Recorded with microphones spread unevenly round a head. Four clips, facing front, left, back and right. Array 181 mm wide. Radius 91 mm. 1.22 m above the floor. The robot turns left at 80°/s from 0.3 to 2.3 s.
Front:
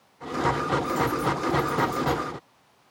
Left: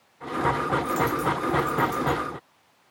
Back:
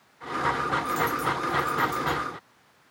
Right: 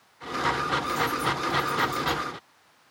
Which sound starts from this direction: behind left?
A dropped coin, at 0.8 s.